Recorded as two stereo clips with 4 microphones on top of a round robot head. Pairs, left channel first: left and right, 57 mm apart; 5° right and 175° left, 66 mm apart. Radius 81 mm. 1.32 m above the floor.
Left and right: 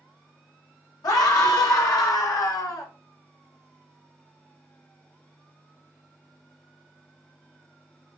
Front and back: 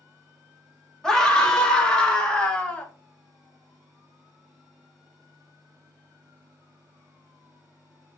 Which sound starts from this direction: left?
A scream, at 1.0 s.